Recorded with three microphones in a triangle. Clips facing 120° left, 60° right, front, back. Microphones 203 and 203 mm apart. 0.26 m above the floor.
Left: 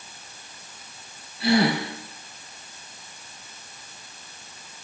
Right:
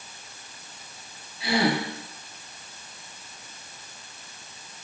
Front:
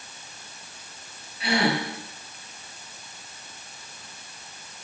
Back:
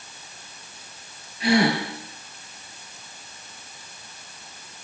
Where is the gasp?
130° left, 4 m.